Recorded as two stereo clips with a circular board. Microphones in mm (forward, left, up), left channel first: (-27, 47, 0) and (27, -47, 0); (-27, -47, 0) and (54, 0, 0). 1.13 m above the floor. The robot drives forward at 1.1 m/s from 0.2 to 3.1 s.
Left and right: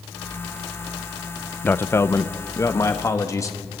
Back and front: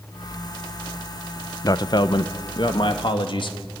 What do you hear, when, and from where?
1.6 s a man speaking: 175° right, 0.7 m; by 3.6 s straight behind, 2 m